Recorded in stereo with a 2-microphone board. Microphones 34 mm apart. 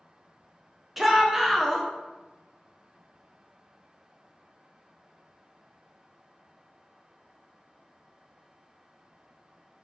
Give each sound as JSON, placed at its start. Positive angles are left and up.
{"t": 1.0, "sound": "a shout", "side_deg": -10, "distance_m": 0.5}